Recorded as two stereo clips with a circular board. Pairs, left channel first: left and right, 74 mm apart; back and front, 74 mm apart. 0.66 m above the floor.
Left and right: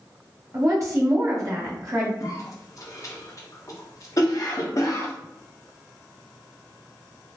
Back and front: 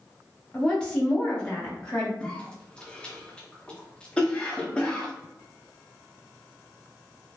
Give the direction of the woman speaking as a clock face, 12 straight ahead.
4 o'clock.